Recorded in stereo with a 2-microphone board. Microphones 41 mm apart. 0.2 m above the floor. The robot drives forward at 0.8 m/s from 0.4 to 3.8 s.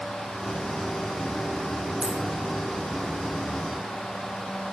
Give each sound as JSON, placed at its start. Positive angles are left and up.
{"t": 2.0, "sound": "a dropped coin", "side_deg": -35, "distance_m": 2.5}